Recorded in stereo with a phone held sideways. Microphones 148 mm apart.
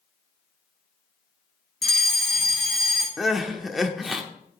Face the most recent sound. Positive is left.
turn(degrees=0)  # may be behind; listen again after turning